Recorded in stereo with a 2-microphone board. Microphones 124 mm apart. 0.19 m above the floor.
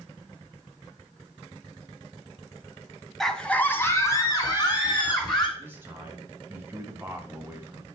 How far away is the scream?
About 1.1 m.